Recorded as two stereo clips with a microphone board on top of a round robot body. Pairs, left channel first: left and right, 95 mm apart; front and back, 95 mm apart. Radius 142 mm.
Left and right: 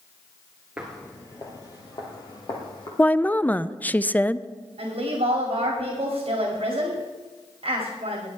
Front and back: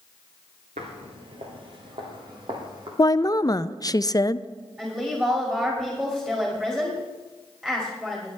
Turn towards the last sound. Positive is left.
turn(degrees=-105)